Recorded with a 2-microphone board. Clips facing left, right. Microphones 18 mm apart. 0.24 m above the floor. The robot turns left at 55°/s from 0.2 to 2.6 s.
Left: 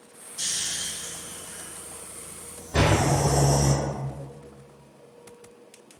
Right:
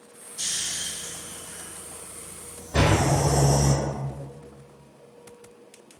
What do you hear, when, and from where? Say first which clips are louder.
0.4 s snoring: even; 40° left (ahead or behind), 1.0 m; by 3.7 s 15° right (ahead or behind), 1.0 m
2.7 s a door slam: even; 40° right (ahead or behind), 1.1 m